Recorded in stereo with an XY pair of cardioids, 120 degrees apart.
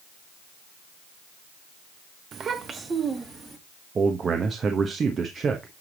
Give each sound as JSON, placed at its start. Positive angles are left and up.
{"t": 2.3, "sound": "a child speaking", "azimuth_deg": -45, "distance_m": 0.9}
{"t": 4.0, "sound": "a man speaking", "azimuth_deg": -35, "distance_m": 1.0}